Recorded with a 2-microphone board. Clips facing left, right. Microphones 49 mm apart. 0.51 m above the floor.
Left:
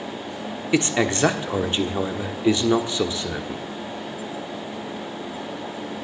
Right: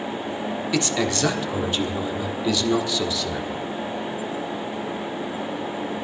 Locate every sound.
0.7 s a man speaking: 25° left (ahead or behind), 1.2 m